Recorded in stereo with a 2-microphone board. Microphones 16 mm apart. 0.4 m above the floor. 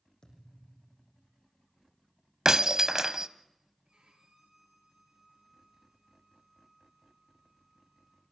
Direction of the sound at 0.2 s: 55° left (ahead or behind).